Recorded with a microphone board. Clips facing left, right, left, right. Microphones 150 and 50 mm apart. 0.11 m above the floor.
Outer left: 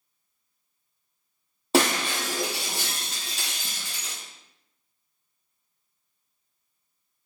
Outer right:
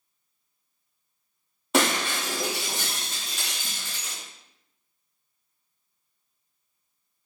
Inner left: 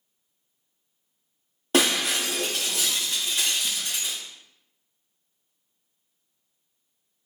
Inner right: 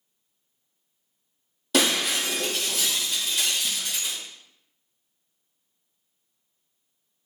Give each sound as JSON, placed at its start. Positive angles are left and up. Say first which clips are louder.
{"t": 1.7, "sound": "breaking glass", "louder": "outer left 1 dB, inner left 1 dB", "side_deg": 30, "distance_m": 1.7}